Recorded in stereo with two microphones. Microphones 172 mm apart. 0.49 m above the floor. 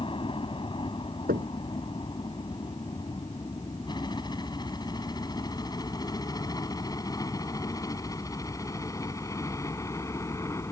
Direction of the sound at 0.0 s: 30° left (ahead or behind).